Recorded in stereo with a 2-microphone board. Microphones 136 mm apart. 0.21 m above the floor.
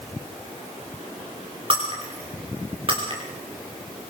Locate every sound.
1.7 s breaking glass: 40° right (ahead or behind), 8.5 m